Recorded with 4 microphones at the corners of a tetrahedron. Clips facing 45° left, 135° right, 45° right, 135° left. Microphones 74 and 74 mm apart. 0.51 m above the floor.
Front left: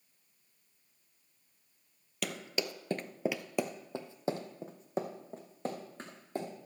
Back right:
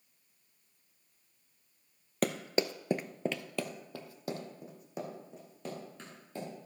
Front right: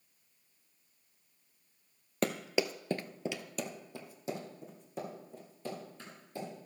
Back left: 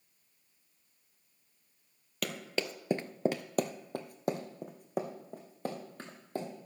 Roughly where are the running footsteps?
Right.